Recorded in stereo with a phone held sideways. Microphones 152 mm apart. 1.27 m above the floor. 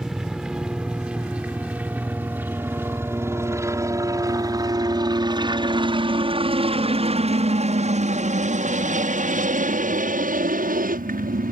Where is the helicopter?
5° right (ahead or behind); by 11.5 s 70° right (ahead or behind).